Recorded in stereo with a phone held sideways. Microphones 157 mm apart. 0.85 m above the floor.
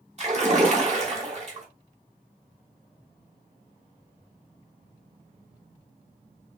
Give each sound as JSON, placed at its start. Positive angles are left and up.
{"t": 0.2, "sound": "a splash", "side_deg": -45, "distance_m": 1.6}